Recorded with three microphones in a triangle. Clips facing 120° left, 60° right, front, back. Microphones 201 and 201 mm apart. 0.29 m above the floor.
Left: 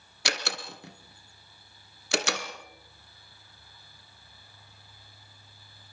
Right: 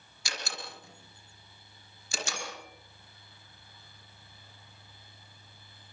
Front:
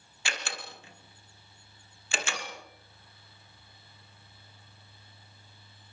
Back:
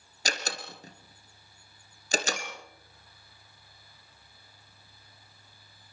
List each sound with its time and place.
0.2 s a door slam: 130° left, 3 m
2.4 s a clink: 50° left, 1.4 m